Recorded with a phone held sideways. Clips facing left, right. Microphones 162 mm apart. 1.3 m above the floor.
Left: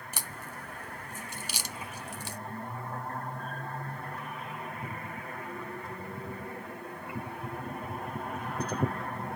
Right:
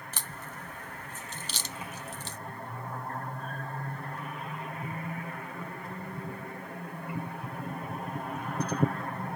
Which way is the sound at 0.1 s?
10° left (ahead or behind).